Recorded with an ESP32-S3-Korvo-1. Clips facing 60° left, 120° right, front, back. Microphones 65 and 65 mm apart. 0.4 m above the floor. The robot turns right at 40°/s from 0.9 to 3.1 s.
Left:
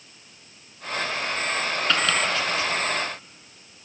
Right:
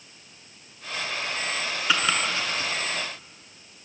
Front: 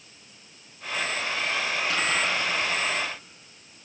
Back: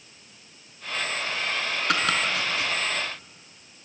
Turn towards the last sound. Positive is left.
turn(degrees=-155)